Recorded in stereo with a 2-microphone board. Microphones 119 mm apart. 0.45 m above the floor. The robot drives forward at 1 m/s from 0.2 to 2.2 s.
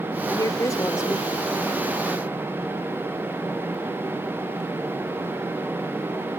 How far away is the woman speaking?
About 1.1 m.